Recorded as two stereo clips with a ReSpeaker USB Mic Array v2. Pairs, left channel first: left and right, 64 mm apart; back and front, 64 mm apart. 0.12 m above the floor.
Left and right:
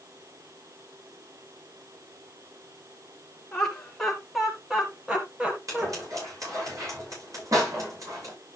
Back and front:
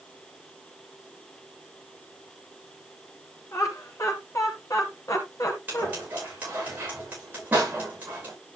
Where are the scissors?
60° right, 9.5 m.